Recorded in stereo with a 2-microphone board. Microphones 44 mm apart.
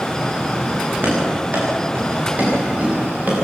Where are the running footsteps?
50° right (ahead or behind), 9.5 m; by 3.4 s 35° right (ahead or behind), 10 m.